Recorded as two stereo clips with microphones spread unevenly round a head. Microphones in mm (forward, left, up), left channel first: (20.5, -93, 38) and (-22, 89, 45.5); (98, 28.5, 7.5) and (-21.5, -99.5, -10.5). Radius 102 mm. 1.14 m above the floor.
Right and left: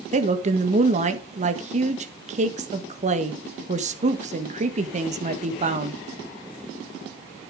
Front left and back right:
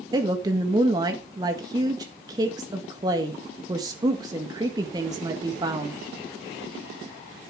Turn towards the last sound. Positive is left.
turn(degrees=155)